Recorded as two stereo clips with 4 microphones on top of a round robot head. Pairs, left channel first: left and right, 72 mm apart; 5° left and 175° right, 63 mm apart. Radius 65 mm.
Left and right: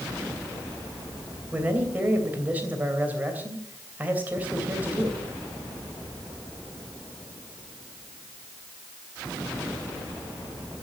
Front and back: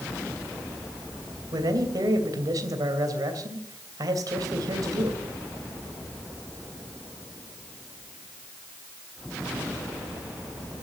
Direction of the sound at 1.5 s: 155° right.